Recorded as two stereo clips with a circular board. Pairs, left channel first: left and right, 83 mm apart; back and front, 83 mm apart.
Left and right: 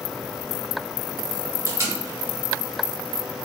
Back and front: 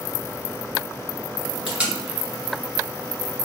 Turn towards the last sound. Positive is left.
turn(degrees=-70)